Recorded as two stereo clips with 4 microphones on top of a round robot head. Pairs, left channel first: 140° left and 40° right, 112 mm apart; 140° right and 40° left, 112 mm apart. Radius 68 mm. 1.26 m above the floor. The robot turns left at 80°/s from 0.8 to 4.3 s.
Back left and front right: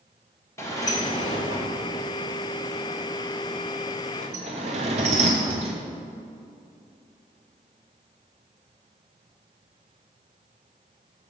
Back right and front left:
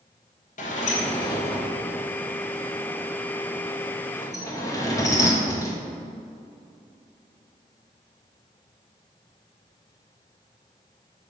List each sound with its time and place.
0.6 s a sliding door: 155° right, 1.8 m; by 5.7 s 75° right, 1.8 m